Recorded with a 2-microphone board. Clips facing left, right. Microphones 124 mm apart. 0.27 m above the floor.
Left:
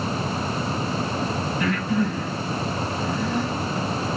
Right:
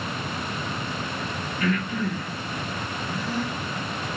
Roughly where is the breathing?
Left.